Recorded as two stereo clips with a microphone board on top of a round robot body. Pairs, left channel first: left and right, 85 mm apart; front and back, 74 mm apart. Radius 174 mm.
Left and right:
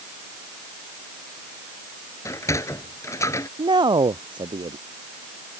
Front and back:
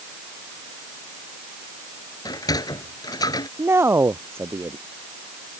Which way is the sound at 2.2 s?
35° left.